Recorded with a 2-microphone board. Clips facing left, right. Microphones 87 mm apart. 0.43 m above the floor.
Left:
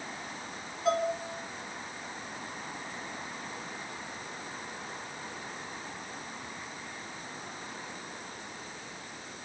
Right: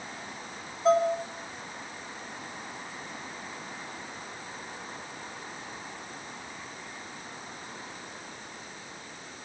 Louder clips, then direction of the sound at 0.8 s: Right 6 dB; 30° right (ahead or behind).